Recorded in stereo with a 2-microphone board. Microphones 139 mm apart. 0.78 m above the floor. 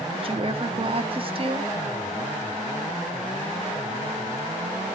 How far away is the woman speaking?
About 1.1 m.